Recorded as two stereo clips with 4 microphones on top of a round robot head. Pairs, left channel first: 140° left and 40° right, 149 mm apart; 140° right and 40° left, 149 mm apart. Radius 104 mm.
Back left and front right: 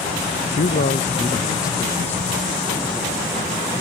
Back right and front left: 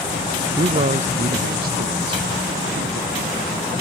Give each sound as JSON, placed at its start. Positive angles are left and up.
{"t": 0.6, "sound": "a man speaking", "azimuth_deg": 105}